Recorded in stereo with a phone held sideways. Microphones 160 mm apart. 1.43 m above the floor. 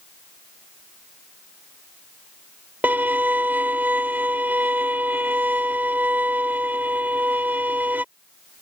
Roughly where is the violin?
Centre.